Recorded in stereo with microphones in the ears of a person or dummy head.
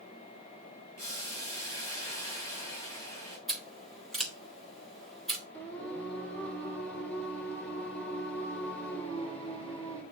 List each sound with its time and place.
1.0 s boiling: 15° left (ahead or behind), 5 m
3.5 s scissors: centre (ahead or behind), 1.8 m
5.5 s singing: 5° left (ahead or behind), 2.5 m